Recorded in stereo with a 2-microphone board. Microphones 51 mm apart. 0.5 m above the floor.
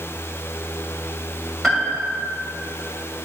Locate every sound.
1.6 s a piano: 5° left (ahead or behind), 2 m